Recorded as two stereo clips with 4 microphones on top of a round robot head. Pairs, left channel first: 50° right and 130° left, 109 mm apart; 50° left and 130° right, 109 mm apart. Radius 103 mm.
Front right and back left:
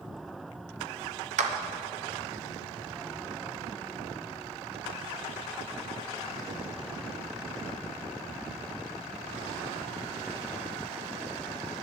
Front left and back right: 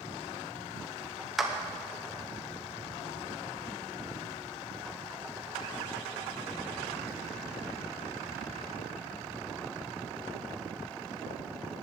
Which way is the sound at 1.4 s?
140° left.